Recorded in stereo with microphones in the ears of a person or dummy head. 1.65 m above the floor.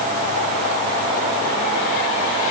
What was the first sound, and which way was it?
Only background noise.